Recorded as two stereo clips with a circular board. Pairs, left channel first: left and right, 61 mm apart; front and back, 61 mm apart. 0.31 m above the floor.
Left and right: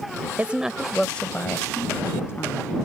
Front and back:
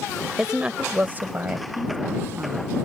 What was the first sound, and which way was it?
A woman speaking, 110° right.